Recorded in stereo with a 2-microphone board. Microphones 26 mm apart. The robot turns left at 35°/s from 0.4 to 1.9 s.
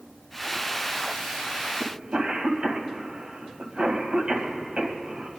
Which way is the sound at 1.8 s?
45° right (ahead or behind).